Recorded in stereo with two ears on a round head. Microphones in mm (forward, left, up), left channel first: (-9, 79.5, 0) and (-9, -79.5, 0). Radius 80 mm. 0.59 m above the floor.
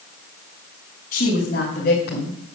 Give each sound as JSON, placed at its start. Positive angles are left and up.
{"t": 1.1, "sound": "a woman speaking", "side_deg": 45, "distance_m": 3.5}